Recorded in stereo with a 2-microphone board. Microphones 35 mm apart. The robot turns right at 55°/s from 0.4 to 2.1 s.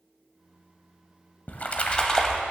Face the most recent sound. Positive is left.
turn(degrees=155)